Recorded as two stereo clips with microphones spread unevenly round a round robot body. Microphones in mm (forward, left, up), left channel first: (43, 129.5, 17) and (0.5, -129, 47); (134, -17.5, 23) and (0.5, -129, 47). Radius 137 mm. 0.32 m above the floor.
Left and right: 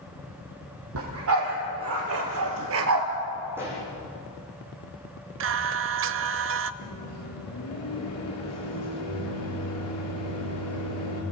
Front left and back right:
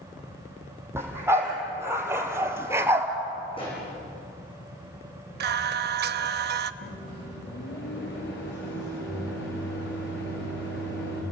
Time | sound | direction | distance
0.9 | a dog barking | 65° right | 5.5 m
3.5 | a pop | 20° right | 10 m
5.4 | singing | 135° right | 0.7 m
6.8 | a microwave | 60° left | 6.5 m